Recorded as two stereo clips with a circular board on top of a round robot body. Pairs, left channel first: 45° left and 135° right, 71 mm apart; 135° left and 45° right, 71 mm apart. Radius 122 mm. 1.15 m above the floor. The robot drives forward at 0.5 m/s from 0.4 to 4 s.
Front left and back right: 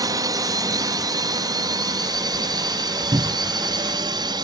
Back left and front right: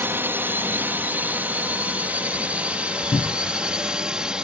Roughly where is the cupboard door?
Behind.